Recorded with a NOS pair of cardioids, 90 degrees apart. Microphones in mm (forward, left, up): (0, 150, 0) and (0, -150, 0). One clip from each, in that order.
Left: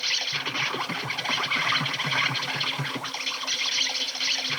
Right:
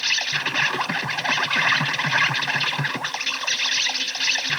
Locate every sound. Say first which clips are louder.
0.0 s an insect: right 4 dB; 30° right, 0.9 m